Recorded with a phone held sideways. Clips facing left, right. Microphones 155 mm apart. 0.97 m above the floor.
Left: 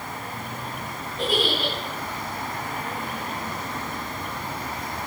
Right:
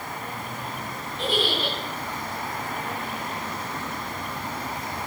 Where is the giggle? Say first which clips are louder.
Left 1 dB; 40° left (ahead or behind), 8 m.